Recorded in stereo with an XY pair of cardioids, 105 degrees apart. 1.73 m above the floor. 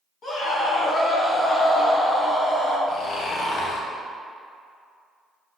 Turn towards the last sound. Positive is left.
turn(degrees=60)